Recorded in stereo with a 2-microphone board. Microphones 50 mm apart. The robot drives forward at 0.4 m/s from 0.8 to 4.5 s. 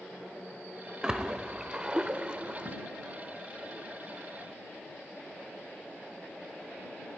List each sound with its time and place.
1.0 s a splash: 15° right (ahead or behind), 0.8 m; by 2.8 s 25° right (ahead or behind), 0.6 m